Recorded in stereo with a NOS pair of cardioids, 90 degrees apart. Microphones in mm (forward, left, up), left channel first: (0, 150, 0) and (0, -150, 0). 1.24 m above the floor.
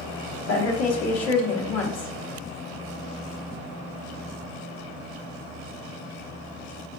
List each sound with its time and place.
0.5 s a woman speaking: 55° left, 1.2 m